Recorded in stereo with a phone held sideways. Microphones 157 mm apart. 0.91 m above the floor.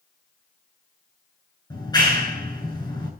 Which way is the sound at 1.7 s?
25° left (ahead or behind).